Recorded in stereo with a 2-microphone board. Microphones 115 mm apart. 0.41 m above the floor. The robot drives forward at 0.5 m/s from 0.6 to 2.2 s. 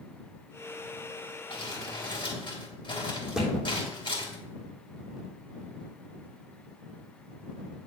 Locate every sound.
1.5 s crumpling: 50° left (ahead or behind), 3 m; by 4.4 s 45° left (ahead or behind), 3 m
3.4 s a thud: 5° right (ahead or behind), 3.5 m